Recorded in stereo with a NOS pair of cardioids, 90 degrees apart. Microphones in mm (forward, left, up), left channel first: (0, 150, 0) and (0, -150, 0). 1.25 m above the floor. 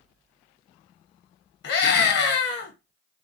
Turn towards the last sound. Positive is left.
turn(degrees=65)